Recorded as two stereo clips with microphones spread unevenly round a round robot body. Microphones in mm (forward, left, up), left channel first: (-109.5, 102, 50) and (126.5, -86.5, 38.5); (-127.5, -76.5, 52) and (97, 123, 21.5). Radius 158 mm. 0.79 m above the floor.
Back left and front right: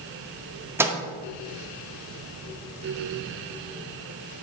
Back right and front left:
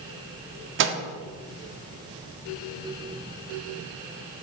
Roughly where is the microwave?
Ahead left.